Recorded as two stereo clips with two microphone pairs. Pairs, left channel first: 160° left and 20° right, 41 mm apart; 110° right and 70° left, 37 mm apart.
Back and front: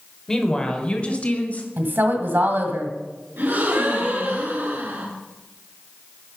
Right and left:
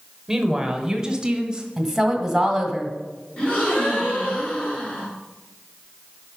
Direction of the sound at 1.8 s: 10° right.